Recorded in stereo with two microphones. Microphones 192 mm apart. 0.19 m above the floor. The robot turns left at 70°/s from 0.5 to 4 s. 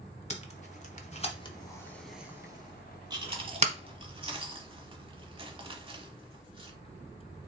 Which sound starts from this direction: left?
Tape being pulled, at 0.3 s.